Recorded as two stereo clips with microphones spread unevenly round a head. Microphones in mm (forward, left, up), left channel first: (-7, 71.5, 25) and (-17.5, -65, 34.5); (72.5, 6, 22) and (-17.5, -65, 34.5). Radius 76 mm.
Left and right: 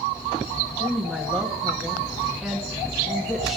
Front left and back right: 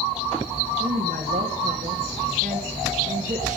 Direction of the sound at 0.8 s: Straight behind.